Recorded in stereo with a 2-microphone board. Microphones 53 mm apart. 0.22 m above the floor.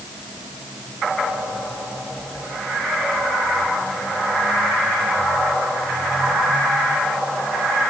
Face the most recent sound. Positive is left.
No sound to turn to.